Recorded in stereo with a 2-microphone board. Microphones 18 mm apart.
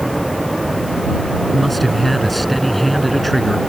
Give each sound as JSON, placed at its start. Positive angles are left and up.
{"t": 1.5, "sound": "a man speaking", "side_deg": 0}